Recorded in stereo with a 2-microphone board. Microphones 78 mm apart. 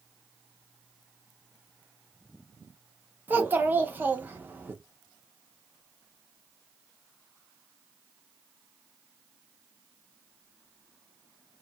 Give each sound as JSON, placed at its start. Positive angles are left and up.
{"t": 3.3, "sound": "a child speaking", "side_deg": -25, "distance_m": 0.6}